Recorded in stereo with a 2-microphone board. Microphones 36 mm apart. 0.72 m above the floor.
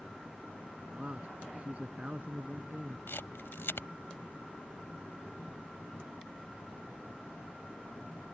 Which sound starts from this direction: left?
A camera shutter, at 3.1 s.